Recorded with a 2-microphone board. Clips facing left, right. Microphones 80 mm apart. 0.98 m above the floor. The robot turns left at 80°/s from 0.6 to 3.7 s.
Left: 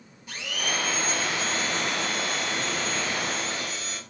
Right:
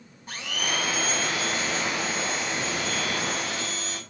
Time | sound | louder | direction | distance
0.3 | a blender | right 1 dB | 140° right | 7.5 m